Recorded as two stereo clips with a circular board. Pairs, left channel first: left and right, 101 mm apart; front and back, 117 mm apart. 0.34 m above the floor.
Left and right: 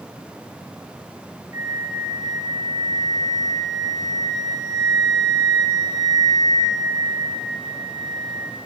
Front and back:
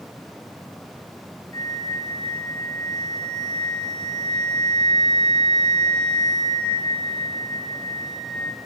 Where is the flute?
40° right, 1.3 m.